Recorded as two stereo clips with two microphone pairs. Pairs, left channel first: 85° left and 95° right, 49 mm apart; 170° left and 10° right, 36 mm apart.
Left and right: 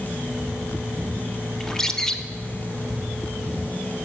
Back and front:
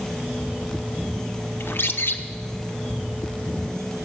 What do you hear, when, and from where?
1.6 s a bird: 165° left, 0.7 m